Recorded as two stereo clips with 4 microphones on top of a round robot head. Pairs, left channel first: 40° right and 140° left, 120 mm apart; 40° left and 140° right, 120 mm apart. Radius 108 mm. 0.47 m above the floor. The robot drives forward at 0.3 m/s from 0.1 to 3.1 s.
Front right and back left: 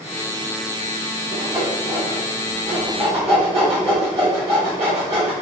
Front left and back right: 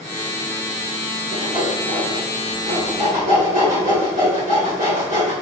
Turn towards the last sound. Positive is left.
turn(degrees=-170)